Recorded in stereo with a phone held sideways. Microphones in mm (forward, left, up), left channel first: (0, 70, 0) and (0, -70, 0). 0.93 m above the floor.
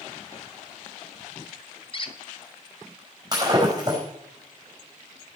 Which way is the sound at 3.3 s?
25° right (ahead or behind).